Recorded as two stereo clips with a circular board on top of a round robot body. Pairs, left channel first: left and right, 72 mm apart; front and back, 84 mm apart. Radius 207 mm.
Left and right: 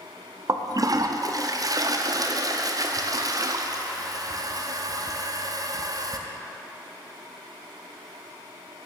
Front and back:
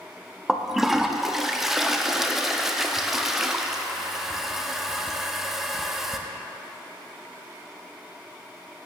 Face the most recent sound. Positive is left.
turn(degrees=-95)